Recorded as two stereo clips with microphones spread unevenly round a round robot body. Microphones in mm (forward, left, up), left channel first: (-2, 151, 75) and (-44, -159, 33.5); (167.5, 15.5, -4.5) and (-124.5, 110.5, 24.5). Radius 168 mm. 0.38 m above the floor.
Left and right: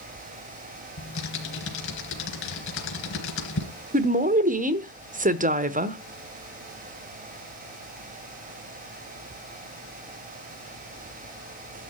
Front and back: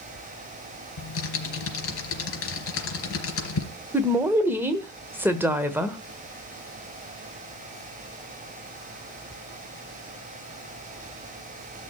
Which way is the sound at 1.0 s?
25° left.